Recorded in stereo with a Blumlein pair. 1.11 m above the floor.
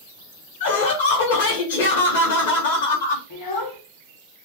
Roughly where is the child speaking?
Ahead left.